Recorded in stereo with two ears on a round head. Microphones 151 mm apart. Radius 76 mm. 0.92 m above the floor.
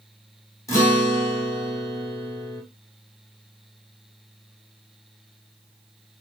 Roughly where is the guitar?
Centre.